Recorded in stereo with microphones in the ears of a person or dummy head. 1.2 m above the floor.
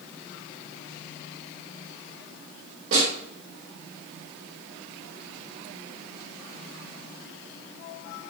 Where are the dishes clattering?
I don't hear dishes clattering.